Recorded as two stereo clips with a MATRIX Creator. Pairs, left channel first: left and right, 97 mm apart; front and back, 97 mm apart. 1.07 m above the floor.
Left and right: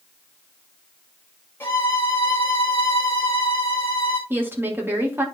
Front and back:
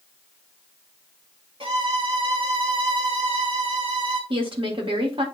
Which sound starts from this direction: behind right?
A woman speaking, at 4.3 s.